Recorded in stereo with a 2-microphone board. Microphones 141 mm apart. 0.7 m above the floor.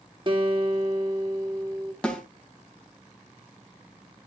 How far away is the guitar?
About 1.9 m.